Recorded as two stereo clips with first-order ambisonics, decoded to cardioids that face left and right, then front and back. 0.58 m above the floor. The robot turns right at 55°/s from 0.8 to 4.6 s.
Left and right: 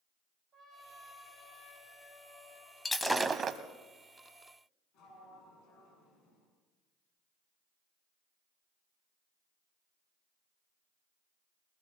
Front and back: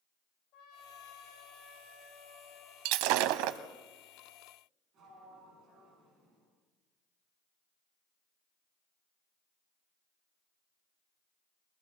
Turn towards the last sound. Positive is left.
turn(degrees=125)